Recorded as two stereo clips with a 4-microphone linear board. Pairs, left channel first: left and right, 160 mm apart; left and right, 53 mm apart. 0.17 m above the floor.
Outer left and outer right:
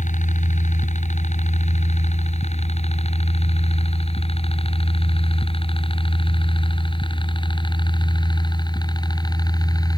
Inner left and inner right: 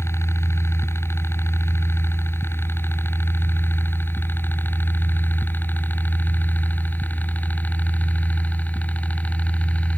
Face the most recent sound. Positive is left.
turn(degrees=25)  # may be behind; listen again after turning